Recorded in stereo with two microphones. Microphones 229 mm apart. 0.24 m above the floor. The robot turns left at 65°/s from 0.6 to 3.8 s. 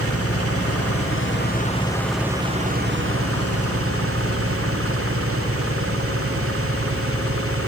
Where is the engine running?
100° left; by 7.7 s 110° right.